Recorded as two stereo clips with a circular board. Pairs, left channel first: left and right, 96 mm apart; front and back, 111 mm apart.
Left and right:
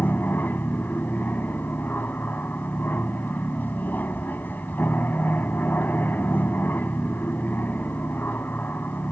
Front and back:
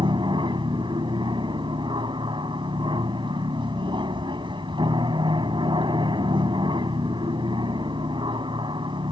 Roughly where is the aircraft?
Behind left.